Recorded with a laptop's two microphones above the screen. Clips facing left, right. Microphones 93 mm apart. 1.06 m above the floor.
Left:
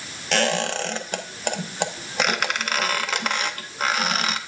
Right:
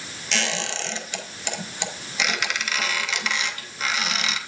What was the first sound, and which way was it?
A squeak, 45° left (ahead or behind).